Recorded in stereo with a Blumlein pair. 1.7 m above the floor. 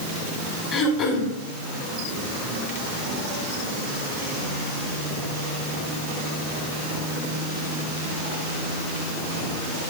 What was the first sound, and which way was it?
Throat clearing, 35° left.